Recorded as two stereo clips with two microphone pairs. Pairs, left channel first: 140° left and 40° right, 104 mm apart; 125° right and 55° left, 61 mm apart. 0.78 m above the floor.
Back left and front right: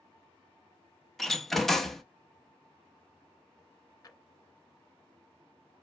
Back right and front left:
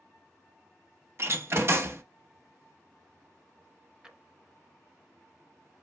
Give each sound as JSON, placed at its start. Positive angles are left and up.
{"t": 1.2, "sound": "a door slam", "azimuth_deg": 55, "distance_m": 0.6}
{"t": 4.0, "sound": "a drawer", "azimuth_deg": 120, "distance_m": 0.6}